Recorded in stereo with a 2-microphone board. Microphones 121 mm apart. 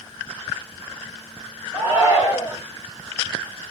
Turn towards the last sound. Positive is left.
turn(degrees=-20)  # may be behind; listen again after turning